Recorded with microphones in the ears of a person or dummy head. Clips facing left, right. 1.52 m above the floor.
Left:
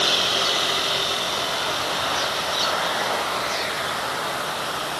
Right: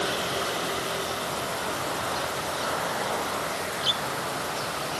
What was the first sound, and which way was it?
Only background noise.